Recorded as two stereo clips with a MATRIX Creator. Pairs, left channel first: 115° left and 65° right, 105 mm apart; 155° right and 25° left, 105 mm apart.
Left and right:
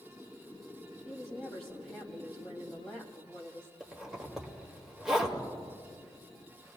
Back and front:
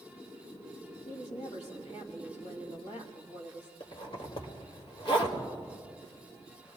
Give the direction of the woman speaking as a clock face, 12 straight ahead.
6 o'clock.